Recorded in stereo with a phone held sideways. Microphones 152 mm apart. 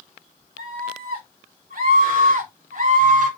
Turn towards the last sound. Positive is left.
turn(degrees=-60)  # may be behind; listen again after turning